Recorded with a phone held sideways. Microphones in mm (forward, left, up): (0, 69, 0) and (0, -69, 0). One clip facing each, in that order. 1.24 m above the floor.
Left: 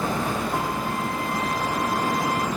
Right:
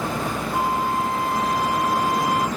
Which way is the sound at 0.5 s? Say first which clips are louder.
Right 4 dB; 45° left (ahead or behind).